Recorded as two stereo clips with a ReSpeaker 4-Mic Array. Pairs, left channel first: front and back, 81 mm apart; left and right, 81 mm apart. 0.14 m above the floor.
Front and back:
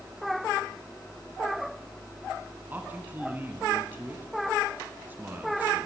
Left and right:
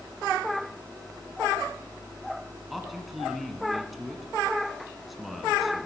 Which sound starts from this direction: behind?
A man speaking, at 2.7 s.